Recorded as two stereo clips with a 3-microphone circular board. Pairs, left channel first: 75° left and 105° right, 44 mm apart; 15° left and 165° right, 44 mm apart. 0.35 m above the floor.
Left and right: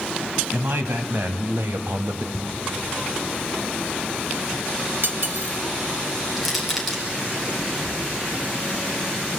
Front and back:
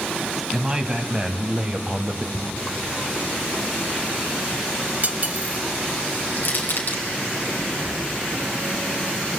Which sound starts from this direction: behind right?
Cutlery clinking, at 5.0 s.